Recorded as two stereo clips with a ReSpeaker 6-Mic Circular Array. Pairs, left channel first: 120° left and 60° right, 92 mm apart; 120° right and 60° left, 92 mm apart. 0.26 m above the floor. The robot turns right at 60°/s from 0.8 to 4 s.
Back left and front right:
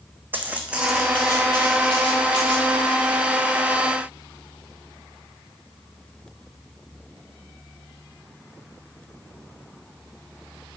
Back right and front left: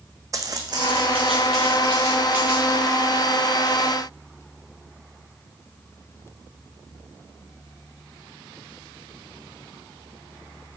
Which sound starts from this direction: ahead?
Footsteps, at 0.3 s.